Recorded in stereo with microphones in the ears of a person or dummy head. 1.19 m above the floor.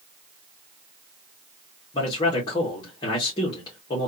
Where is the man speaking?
25° left (ahead or behind), 1.5 m.